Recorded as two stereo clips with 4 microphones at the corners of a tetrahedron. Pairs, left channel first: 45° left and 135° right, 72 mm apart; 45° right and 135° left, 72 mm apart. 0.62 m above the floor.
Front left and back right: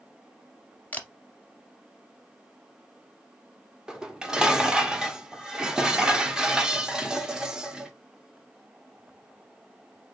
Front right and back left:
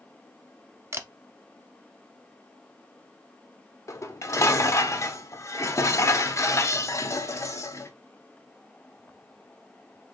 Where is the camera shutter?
100° left, 0.6 m.